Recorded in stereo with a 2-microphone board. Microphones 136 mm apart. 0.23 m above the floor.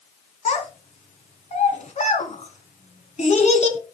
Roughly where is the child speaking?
Left.